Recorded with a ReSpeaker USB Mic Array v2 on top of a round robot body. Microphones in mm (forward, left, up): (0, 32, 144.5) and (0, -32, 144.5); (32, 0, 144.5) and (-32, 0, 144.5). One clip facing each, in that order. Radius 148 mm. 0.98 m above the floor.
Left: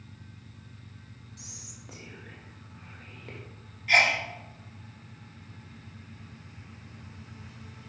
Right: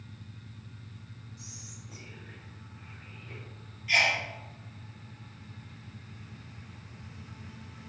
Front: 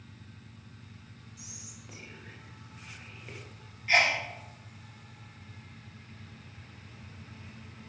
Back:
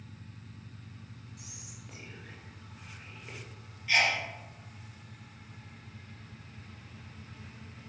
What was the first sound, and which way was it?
Whispering, 85° left.